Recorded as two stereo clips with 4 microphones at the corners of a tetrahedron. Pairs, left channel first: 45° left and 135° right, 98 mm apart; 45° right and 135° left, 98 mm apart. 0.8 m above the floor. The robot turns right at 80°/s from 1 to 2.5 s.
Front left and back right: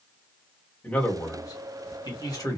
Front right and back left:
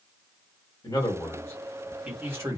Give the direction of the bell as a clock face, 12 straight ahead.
No bell in this recording.